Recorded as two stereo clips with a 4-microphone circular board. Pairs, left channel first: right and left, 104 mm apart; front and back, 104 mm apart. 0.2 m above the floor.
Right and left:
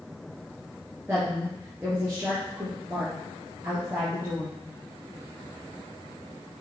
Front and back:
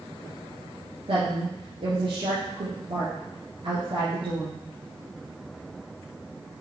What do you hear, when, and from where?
1.1 s a woman speaking: 160° left, 3.5 m